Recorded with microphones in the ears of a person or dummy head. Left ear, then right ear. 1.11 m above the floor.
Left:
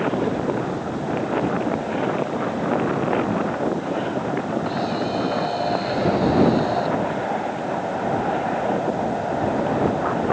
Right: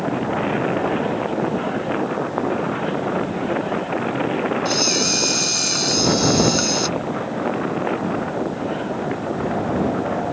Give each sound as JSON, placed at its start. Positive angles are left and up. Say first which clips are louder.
{"t": 4.7, "sound": "a camera shutter", "louder": "right 5 dB", "side_deg": -75}